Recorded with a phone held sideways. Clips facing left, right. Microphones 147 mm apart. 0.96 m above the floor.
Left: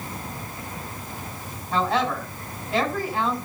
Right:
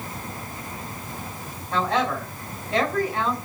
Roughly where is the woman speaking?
Centre.